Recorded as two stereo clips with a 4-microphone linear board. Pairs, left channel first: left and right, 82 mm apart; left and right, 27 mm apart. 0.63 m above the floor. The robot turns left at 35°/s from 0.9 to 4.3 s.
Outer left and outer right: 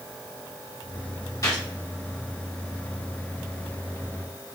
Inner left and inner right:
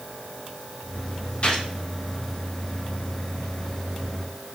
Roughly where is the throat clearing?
No throat clearing in this recording.